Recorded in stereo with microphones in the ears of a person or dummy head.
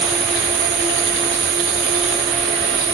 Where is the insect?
50° right (ahead or behind), 2.5 m.